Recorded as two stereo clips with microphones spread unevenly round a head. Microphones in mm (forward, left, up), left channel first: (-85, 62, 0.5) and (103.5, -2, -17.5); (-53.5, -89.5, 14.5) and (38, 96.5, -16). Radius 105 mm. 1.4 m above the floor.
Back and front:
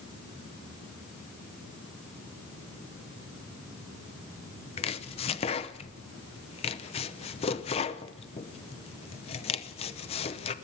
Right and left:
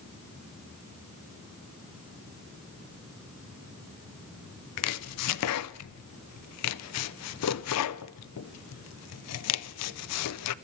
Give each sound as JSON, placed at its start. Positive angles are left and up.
{"t": 4.8, "sound": "chopping", "azimuth_deg": -135, "distance_m": 0.6}